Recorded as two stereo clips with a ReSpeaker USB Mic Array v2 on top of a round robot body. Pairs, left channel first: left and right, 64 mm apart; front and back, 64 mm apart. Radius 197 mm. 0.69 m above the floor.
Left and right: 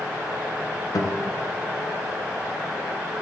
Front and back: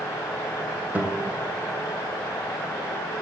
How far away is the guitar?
About 1.8 m.